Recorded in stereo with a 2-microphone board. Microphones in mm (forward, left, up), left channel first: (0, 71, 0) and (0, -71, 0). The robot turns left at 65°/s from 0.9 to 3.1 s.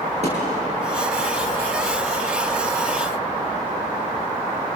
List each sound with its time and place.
0.2 s a thud: 50° right (ahead or behind), 8 m